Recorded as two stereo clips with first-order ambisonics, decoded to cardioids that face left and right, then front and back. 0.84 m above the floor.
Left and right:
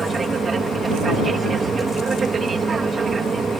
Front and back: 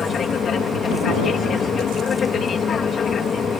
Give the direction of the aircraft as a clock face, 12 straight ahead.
1 o'clock.